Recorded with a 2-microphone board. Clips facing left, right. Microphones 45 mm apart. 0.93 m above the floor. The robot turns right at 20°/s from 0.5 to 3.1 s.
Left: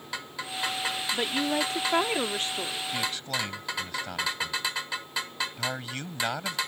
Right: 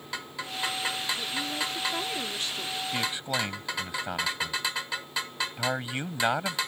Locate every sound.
1.1 s a woman speaking: 115° left; by 2.8 s 150° left
2.9 s a man speaking: 15° right (ahead or behind); by 6.6 s 20° right (ahead or behind)